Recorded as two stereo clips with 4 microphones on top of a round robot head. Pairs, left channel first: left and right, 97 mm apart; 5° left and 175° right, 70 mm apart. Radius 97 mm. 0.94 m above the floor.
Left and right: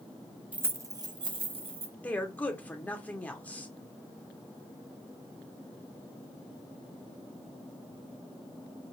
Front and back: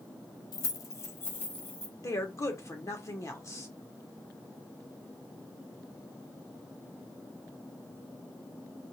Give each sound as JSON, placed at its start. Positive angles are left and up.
{"t": 0.5, "sound": "keys jangling", "azimuth_deg": -15, "distance_m": 0.6}
{"t": 2.0, "sound": "a woman speaking", "azimuth_deg": 20, "distance_m": 1.1}